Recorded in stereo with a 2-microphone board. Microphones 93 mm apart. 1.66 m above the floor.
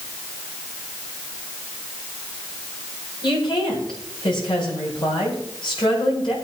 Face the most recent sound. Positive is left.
turn(degrees=65)  # may be behind; listen again after turning